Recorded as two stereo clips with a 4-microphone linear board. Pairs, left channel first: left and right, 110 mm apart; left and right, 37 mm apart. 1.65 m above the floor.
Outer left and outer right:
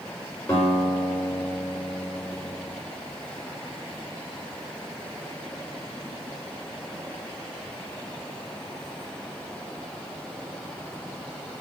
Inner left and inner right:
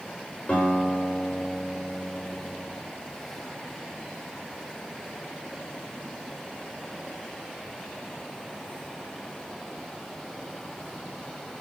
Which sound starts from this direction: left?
A guitar, at 0.5 s.